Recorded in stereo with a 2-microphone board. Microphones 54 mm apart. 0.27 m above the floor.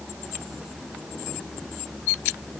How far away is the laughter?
I don't hear laughter.